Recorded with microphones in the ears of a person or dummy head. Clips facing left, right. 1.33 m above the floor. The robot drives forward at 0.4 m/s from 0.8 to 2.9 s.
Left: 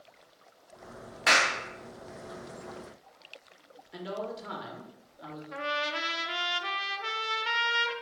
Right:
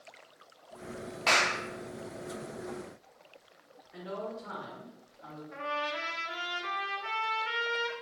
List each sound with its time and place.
1.3 s a clap: 15° left (ahead or behind), 0.5 m
3.9 s a man speaking: 50° left (ahead or behind), 1.0 m
5.5 s a trumpet: 55° left (ahead or behind), 0.5 m